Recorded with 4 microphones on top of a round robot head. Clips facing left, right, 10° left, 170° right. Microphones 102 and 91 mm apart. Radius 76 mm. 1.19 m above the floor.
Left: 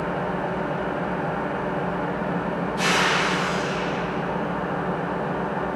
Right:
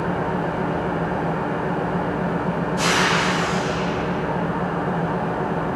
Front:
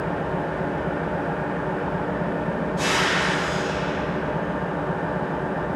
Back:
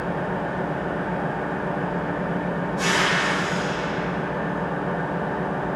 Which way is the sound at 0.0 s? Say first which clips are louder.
Right 3 dB, even; 35° right.